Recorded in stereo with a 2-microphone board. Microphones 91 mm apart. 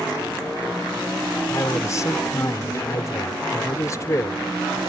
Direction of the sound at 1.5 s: 35° left (ahead or behind).